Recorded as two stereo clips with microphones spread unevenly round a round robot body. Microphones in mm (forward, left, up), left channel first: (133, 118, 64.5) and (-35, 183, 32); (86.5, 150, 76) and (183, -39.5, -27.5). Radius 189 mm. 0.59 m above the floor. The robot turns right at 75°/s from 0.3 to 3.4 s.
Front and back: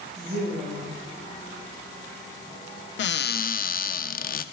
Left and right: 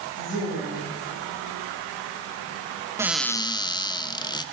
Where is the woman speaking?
165° left, 4.5 m; by 0.8 s 155° right, 4.5 m.